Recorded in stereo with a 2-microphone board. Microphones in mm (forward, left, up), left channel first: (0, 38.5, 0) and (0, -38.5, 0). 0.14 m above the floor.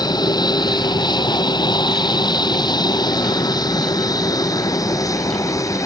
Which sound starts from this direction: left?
An aircraft, at 0.0 s.